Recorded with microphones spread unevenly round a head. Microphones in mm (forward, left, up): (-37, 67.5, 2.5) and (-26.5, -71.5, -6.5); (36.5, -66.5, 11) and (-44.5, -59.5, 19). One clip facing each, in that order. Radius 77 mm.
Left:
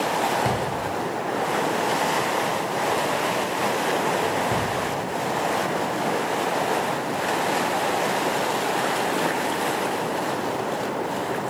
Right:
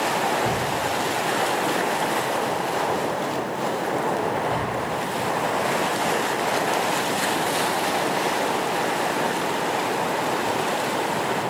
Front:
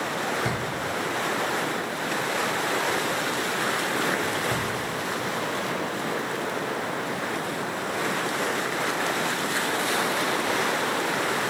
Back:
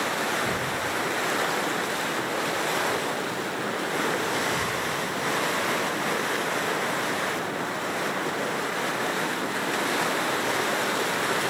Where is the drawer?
40° left, 2.5 m.